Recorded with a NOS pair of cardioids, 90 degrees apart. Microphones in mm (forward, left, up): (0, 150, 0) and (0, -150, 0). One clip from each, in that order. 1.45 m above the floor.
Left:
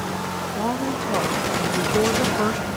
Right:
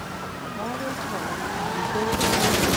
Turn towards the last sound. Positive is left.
turn(degrees=40)